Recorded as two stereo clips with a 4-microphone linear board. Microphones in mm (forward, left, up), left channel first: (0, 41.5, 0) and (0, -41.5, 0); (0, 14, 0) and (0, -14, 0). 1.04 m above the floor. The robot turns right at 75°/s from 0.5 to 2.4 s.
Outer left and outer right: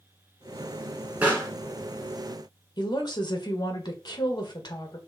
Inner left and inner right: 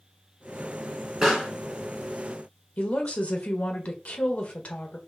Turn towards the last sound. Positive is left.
turn(degrees=60)  # may be behind; listen again after turning